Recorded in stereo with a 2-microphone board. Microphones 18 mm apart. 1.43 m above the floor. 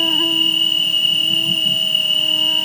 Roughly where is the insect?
Left.